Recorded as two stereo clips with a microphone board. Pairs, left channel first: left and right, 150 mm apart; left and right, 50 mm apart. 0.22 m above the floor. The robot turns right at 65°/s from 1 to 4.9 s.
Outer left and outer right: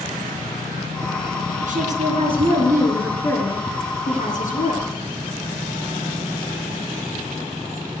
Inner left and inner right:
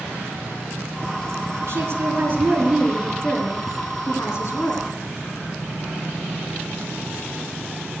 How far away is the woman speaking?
About 3 m.